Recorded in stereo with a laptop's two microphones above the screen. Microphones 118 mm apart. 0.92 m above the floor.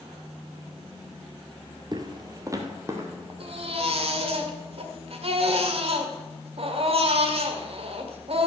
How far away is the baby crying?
About 1.9 m.